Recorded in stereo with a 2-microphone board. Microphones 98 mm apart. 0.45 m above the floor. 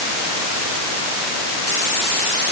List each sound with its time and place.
Only background noise.